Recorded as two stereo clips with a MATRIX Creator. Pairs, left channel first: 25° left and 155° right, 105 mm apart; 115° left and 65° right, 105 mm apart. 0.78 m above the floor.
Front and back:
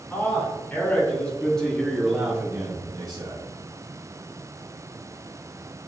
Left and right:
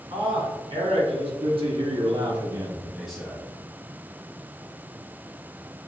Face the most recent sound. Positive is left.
turn(degrees=-175)